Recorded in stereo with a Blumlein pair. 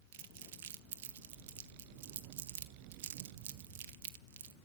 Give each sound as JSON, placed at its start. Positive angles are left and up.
{"t": 0.1, "sound": "crumpling", "azimuth_deg": -55, "distance_m": 1.0}